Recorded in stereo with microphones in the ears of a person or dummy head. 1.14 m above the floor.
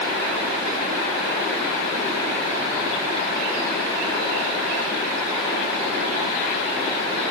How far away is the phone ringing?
I don't hear a phone ringing.